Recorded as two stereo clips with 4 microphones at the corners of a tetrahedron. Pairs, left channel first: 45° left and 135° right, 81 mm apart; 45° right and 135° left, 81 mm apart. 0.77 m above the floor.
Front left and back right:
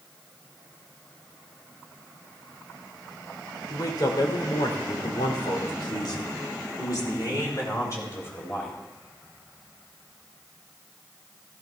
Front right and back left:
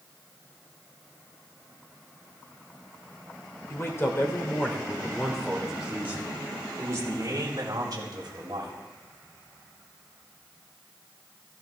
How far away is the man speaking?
About 3 m.